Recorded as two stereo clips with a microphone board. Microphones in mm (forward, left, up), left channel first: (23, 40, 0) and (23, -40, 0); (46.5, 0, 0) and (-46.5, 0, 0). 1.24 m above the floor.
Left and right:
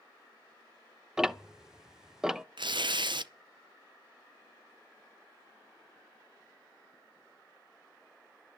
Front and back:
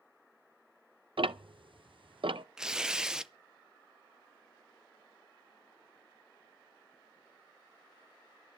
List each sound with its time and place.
1.2 s ticking: 170° right, 0.5 m
2.6 s tearing paper: 100° right, 0.5 m